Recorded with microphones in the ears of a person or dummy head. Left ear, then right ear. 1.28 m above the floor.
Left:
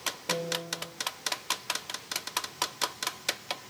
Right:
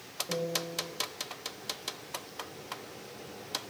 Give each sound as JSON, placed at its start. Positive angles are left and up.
{"t": 0.3, "sound": "a piano", "side_deg": 30, "distance_m": 4.5}